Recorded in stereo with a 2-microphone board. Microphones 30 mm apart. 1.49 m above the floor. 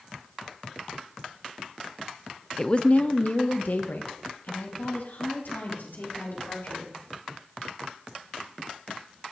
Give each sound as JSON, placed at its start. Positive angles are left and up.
{"t": 2.6, "sound": "a woman speaking", "side_deg": 15, "distance_m": 0.5}